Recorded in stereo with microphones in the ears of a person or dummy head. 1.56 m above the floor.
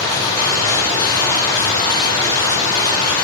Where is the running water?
20° left (ahead or behind), 4.5 m.